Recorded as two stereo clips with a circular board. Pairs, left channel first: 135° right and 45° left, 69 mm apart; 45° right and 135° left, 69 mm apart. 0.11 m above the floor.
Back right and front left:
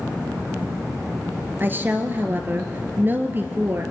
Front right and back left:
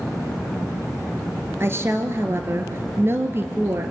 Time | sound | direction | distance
1.6 | a woman speaking | 95° left | 1.7 m